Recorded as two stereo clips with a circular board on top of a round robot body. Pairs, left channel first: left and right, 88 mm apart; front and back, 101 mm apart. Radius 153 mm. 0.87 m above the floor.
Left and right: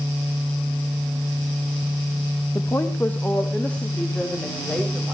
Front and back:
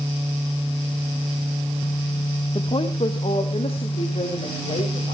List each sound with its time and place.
2.5 s a woman speaking: 35° left, 1.3 m; by 5.2 s 10° left, 4.5 m